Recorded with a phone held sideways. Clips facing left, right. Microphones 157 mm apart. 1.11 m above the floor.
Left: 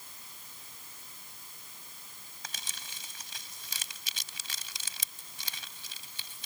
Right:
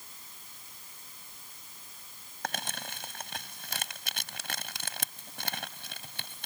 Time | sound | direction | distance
2.4 | crumpling | 65° right (ahead or behind) | ?